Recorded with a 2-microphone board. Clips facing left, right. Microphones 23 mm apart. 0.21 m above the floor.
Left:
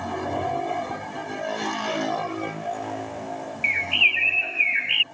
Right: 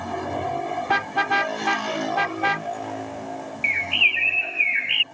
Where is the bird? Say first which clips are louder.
Even; centre (ahead or behind).